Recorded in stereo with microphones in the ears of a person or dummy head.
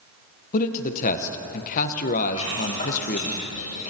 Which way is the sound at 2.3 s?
45° left (ahead or behind).